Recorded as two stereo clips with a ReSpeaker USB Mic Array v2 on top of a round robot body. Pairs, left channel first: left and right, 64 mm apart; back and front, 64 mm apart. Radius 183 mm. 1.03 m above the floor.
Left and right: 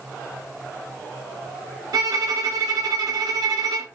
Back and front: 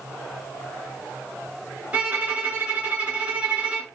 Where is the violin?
70° right, 1.1 m.